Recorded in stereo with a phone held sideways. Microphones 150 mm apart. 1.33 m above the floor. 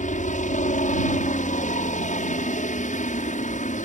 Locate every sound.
0.0 s a helicopter: 65° left (ahead or behind)